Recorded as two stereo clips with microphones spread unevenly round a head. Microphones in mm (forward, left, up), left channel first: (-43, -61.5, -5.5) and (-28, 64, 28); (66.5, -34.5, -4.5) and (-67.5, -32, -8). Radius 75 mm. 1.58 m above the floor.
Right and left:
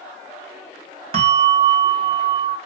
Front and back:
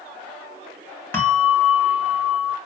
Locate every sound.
1.1 s a bell: 70° left, 2 m